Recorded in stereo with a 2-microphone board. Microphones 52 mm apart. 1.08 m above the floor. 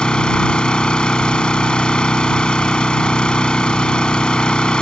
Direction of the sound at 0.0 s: 15° left (ahead or behind).